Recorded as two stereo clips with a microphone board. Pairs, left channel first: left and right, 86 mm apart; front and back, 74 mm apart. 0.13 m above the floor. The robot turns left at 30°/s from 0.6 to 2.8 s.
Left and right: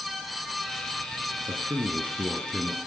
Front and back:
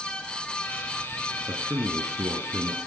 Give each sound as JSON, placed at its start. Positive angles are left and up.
{"t": 1.5, "sound": "a man speaking", "azimuth_deg": -130, "distance_m": 2.0}